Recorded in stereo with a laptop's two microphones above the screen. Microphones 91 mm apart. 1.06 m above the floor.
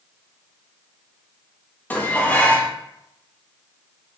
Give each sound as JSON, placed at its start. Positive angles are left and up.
{"t": 1.9, "sound": "dishes clattering", "side_deg": 20, "distance_m": 0.5}